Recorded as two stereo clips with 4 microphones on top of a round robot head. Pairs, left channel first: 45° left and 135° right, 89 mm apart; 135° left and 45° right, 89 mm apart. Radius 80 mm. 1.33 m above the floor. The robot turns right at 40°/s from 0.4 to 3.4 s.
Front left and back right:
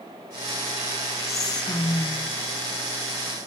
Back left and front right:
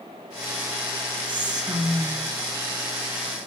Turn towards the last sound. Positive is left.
turn(degrees=70)